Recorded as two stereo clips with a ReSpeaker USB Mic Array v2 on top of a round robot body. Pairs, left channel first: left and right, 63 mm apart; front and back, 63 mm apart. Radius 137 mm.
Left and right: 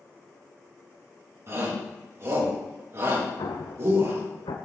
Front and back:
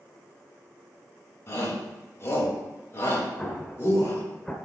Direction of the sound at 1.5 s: 45° right.